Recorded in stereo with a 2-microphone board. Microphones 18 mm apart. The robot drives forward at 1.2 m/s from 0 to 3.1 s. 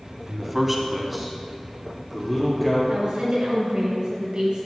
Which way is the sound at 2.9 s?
60° right (ahead or behind).